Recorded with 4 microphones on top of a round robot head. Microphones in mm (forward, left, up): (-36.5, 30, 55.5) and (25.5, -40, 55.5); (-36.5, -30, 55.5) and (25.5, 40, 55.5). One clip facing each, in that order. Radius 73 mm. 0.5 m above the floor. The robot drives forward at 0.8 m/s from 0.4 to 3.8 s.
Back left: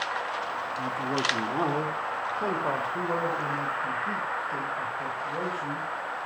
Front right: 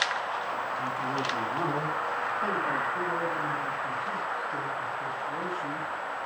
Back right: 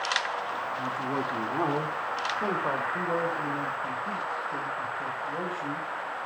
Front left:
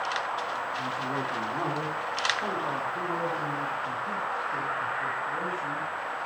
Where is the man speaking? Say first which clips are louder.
Back left 1 dB, back right 1 dB; 165° left, 1.3 m; by 5.9 s 175° left, 3 m.